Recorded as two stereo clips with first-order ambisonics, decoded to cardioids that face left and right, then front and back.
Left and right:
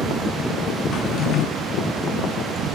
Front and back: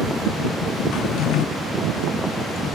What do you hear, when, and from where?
0.9 s a drawer: 40° left